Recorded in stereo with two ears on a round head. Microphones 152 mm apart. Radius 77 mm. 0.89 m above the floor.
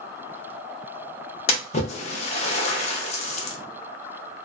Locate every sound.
1.5 s a splash: 40° left (ahead or behind), 0.5 m